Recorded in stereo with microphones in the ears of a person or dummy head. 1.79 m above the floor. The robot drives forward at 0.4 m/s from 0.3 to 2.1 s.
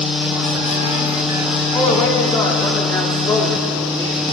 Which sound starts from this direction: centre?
A man speaking, at 1.7 s.